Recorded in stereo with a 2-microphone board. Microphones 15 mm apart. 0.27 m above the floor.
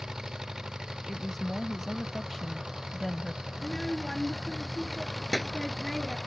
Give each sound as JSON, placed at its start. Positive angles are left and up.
{"t": 0.0, "sound": "an engine running", "side_deg": -60}
{"t": 1.1, "sound": "a woman speaking", "side_deg": 10}
{"t": 3.5, "sound": "a child speaking", "side_deg": 60}